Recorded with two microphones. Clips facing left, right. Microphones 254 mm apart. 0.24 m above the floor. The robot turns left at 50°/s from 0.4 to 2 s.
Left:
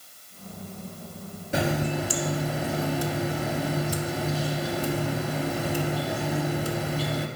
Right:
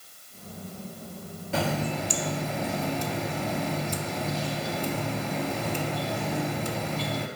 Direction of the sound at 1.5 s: 20° left (ahead or behind).